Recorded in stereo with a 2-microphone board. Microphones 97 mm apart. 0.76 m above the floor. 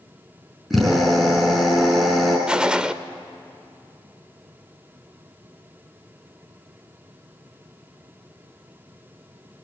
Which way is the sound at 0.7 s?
Centre (ahead or behind).